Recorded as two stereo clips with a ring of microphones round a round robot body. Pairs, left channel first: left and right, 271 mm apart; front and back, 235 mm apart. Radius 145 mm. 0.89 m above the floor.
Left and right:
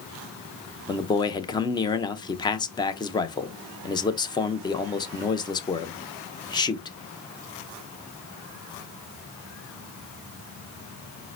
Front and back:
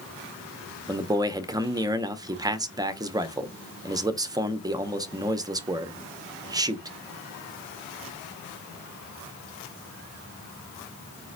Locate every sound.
0.9 s a man speaking: 135° left, 0.6 m